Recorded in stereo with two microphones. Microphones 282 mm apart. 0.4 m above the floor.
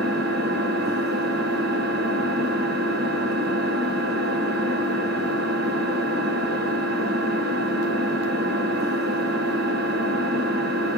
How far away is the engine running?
About 1.0 m.